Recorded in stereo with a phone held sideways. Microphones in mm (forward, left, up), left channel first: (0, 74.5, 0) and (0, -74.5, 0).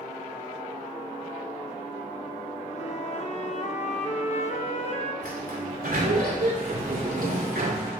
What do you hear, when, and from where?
2.7 s a flute: 50° left (ahead or behind), 1.2 m
5.2 s a sliding door: 70° right (ahead or behind), 2 m